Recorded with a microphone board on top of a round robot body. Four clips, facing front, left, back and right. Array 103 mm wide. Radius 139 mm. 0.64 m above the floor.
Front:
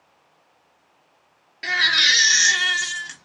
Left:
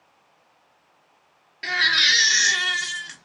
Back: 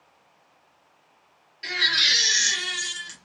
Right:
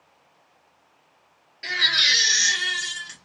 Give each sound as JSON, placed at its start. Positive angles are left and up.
{"t": 1.6, "sound": "a baby crying", "azimuth_deg": 35, "distance_m": 1.1}